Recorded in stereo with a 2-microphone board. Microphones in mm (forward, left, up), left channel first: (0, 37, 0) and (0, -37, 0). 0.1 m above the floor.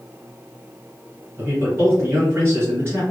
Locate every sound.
1.4 s a man speaking: 30° right (ahead or behind), 2.0 m